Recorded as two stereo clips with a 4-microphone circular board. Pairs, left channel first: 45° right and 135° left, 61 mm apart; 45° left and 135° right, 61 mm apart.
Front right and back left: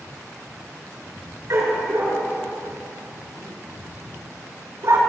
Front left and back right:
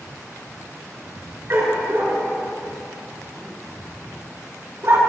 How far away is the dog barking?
About 8 m.